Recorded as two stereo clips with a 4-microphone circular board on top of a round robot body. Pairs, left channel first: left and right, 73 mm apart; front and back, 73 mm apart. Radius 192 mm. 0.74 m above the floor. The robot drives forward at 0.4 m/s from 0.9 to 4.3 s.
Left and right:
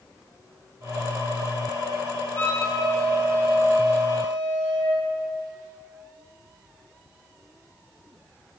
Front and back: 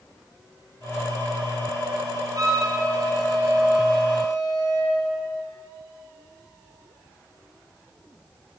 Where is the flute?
145° left, 1.9 m; by 5.0 s 155° left, 2.5 m.